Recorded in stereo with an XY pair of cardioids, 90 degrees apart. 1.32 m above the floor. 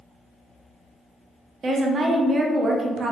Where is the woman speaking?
50° right, 0.6 m.